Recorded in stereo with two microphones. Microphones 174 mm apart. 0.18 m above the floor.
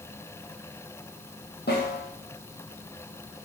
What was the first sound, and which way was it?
A snare drum, 70° left (ahead or behind).